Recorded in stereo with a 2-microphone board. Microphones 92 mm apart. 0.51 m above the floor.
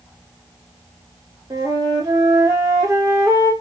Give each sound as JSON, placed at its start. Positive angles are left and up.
{"t": 1.5, "sound": "a flute", "side_deg": -45, "distance_m": 1.2}